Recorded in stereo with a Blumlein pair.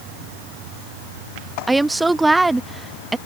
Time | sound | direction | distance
1.7 | a woman speaking | 5° right | ?